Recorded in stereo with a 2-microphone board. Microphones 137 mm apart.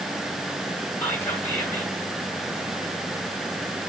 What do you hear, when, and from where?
1.0 s whispering: 15° left (ahead or behind), 1.5 m